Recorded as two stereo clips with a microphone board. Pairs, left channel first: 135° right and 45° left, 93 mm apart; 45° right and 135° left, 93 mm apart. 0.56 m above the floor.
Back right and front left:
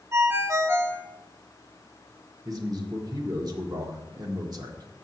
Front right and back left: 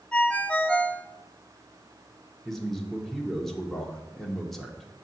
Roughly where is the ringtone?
Ahead.